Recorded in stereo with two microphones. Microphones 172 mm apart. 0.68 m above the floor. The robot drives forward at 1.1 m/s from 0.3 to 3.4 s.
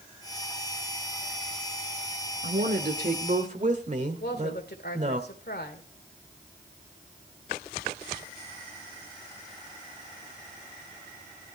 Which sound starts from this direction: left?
A woman speaking, at 4.2 s.